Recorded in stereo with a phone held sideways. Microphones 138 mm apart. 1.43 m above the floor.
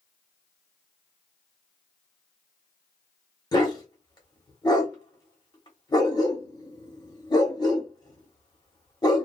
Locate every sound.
3.5 s a dog barking: 30° left (ahead or behind), 1.1 m